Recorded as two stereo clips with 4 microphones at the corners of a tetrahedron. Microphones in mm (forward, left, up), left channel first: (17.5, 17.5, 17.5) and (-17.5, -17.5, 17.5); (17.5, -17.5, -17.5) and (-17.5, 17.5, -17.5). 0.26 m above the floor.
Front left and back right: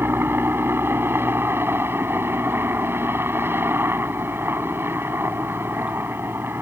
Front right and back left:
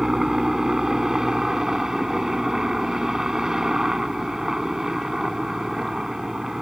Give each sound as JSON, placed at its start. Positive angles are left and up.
{"t": 0.0, "sound": "a helicopter", "azimuth_deg": -150}